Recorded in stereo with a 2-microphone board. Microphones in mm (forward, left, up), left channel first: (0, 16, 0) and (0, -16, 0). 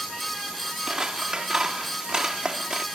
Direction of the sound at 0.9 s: 20° right (ahead or behind).